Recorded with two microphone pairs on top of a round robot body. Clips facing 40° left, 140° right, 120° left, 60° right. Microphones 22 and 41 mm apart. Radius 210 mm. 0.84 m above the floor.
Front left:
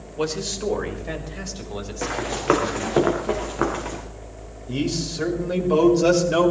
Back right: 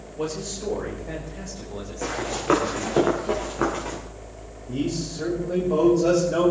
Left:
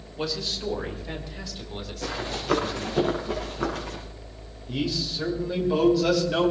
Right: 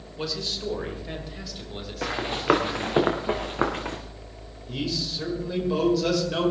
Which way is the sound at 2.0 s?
20° right.